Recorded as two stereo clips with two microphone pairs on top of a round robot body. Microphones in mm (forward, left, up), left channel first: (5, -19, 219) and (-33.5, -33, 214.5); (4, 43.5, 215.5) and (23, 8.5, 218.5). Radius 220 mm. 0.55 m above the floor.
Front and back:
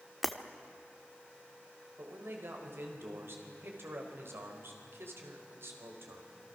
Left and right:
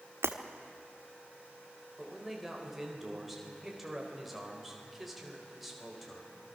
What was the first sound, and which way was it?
Breaking glass, 70° right.